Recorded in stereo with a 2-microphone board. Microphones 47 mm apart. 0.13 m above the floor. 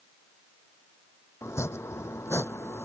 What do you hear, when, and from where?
1.4 s chopping: 75° left (ahead or behind)